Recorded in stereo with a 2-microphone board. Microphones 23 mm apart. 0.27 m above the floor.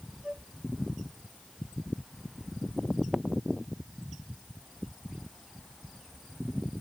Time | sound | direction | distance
0.2 | a flute | 30° right (ahead or behind) | ?